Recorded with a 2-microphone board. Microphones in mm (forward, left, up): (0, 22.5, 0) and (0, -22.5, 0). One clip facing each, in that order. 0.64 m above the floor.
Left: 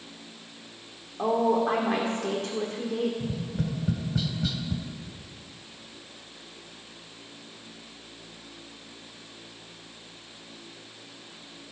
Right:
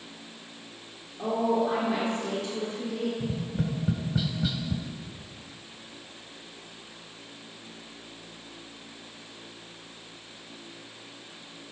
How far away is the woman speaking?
About 1.7 m.